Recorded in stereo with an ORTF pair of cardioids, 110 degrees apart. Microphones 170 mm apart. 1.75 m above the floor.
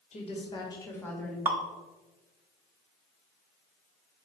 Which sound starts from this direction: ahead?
Dripping, at 1.4 s.